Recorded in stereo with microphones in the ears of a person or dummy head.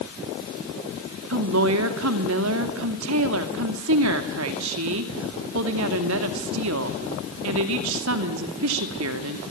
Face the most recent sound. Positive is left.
turn(degrees=-70)  # may be behind; listen again after turning